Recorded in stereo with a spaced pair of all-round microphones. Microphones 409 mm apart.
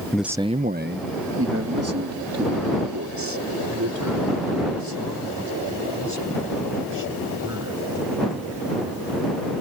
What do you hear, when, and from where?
0.1 s a man speaking: 5° left (ahead or behind); by 7.8 s 45° right (ahead or behind)